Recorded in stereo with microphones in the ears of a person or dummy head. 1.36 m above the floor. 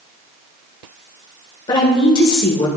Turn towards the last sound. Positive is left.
turn(degrees=25)  # may be behind; listen again after turning